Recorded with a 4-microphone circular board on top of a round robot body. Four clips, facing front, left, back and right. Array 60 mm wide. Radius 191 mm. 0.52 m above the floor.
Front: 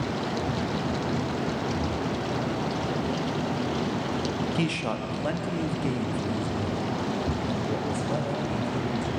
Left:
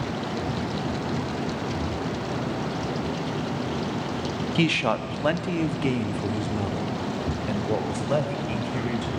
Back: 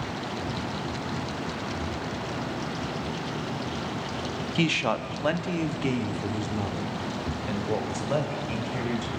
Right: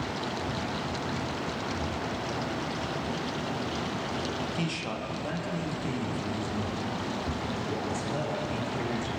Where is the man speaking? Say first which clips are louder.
Left 9 dB, back 2 dB; 115° left, 1.1 m.